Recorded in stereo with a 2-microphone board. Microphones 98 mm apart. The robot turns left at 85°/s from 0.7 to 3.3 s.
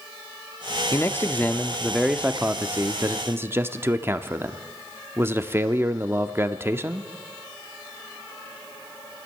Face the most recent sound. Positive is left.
turn(degrees=-25)  # may be behind; listen again after turning